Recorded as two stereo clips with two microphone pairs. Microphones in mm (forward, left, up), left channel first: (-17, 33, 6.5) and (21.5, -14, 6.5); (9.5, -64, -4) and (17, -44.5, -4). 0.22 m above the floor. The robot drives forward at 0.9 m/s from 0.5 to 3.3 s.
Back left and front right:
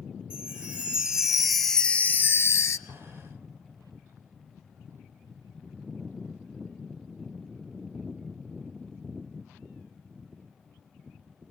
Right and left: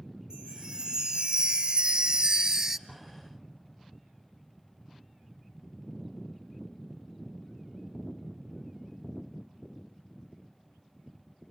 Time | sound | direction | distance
0.3 | a chime | 15° left | 1.6 m
2.9 | an explosion | straight behind | 6.5 m